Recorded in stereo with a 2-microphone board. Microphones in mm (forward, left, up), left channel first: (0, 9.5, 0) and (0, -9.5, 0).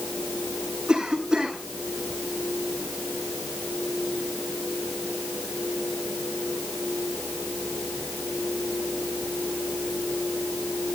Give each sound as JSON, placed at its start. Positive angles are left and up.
{"t": 0.9, "sound": "a cough", "side_deg": -40, "distance_m": 9.0}